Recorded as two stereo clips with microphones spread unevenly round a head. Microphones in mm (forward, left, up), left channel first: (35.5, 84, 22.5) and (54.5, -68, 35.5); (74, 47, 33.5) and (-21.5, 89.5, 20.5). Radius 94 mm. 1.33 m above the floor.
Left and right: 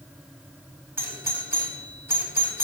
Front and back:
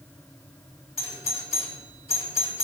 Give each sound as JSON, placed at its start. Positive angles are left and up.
{"t": 1.0, "sound": "a doorbell", "azimuth_deg": -5, "distance_m": 4.5}